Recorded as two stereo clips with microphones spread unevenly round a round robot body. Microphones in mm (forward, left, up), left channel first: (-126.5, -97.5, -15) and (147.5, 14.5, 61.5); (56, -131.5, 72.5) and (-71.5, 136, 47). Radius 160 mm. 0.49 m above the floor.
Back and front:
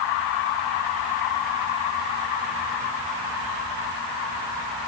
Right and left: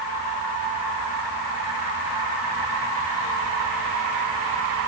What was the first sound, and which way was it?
Only background noise.